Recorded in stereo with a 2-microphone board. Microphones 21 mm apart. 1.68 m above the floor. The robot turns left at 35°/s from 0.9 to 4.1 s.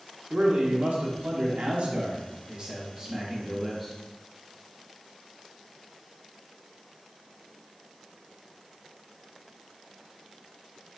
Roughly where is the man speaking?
Right.